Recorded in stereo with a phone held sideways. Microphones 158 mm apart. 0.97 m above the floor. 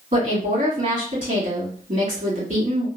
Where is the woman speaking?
50° right (ahead or behind), 2 m.